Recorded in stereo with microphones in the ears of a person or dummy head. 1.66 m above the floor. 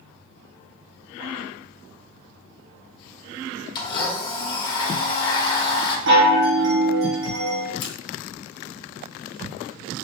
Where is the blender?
25° left (ahead or behind), 1.0 m.